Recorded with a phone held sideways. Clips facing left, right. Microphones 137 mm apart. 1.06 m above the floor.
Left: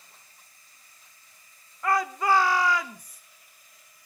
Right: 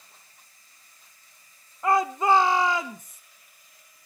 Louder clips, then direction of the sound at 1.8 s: Right 3 dB; 25° right (ahead or behind).